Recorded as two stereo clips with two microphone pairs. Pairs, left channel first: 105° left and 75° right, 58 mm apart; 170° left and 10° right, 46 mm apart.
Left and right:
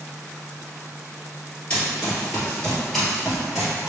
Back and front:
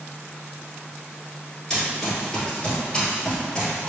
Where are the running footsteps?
120° left, 1.7 m; by 3.9 s 140° right, 1.8 m.